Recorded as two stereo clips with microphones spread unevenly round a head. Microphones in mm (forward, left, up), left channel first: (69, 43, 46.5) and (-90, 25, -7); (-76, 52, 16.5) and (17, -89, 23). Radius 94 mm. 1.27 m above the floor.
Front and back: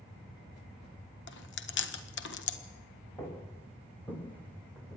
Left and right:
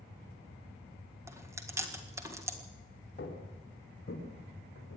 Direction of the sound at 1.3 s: 20° left.